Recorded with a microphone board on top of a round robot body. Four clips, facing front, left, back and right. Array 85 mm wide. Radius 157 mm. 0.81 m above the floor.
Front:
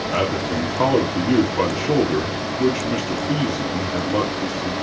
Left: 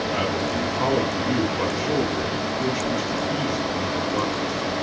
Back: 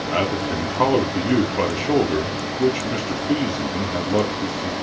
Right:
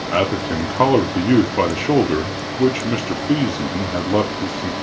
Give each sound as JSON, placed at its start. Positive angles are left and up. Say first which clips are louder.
{"t": 0.1, "sound": "a man speaking", "louder": "right 8 dB, even", "azimuth_deg": -90, "distance_m": 2.5}